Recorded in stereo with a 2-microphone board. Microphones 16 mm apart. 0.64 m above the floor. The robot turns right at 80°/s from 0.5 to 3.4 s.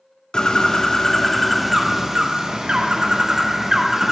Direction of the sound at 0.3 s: 100° left.